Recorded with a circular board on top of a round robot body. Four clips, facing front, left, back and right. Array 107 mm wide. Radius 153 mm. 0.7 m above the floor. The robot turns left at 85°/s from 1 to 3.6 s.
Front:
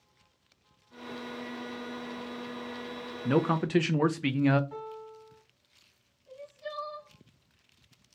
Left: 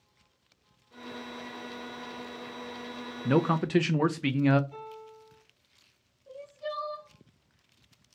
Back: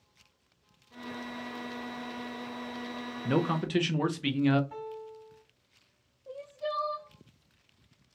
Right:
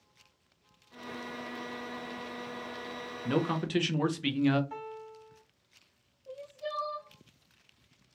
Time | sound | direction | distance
3.2 | a man speaking | 80° left | 0.5 m
4.7 | a piano | 95° right | 1.8 m
6.3 | crying | 175° right | 0.5 m